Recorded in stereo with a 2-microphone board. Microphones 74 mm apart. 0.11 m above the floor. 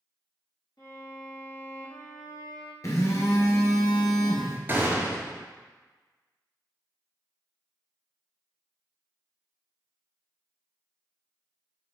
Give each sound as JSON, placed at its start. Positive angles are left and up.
{"t": 0.8, "sound": "a violin", "side_deg": 60, "distance_m": 1.6}
{"t": 2.8, "sound": "a phone buzzing", "side_deg": 50, "distance_m": 1.1}
{"t": 4.7, "sound": "a gunshot", "side_deg": -30, "distance_m": 1.0}